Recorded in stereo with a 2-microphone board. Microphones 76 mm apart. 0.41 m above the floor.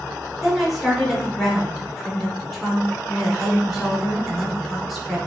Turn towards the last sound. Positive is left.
turn(degrees=0)  # may be behind; listen again after turning